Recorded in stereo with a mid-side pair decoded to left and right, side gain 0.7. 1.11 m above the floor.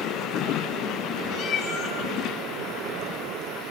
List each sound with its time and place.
1.3 s a cat meowing: 40° left, 6 m